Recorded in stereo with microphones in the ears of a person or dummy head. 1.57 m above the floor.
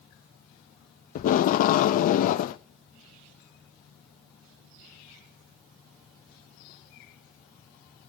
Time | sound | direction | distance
1.1 | tape being pulled | 55° left (ahead or behind) | 0.6 m